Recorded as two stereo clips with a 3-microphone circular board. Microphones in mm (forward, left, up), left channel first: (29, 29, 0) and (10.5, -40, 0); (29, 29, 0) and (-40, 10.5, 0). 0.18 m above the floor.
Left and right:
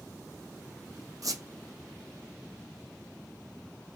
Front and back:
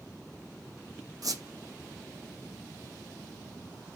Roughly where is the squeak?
Behind right.